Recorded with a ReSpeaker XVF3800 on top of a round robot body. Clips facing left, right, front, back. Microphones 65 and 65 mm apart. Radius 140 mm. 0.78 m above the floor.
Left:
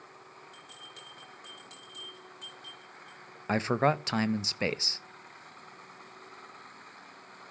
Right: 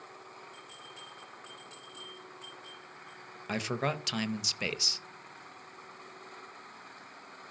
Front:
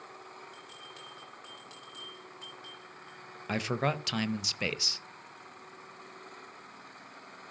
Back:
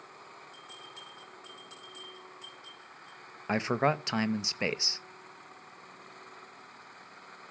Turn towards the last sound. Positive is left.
turn(degrees=125)